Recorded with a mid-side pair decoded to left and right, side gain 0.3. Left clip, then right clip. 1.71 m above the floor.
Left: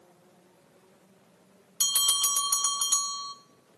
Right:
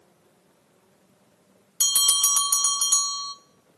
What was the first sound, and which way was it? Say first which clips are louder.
A bell: right 4 dB; 40° right.